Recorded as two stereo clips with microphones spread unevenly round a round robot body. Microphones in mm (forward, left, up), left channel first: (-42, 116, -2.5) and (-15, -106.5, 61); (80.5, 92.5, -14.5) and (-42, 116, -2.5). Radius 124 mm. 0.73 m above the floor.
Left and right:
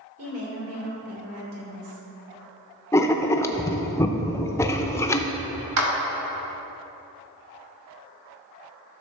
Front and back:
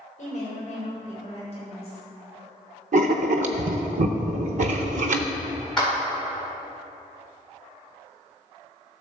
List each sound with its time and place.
0.2 s a woman speaking: 50° right, 3 m; by 2.0 s 80° right, 3.5 m
2.9 s writing: straight behind, 0.5 m
5.8 s a clap: 100° right, 2 m